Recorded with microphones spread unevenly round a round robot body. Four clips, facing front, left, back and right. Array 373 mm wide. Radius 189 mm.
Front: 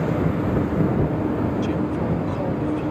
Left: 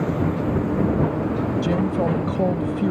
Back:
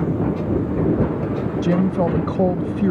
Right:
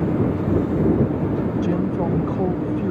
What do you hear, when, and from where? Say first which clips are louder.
1.6 s a woman speaking: even, back 4 dB; 175° left